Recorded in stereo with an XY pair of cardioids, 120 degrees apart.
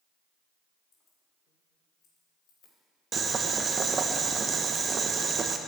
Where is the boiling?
35° right, 0.9 m.